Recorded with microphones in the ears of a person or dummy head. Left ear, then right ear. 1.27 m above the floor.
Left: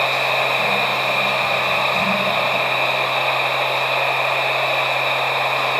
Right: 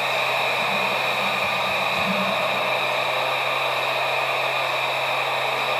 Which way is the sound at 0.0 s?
40° left (ahead or behind).